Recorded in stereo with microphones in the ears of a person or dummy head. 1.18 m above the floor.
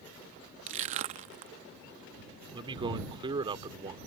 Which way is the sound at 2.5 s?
25° right (ahead or behind).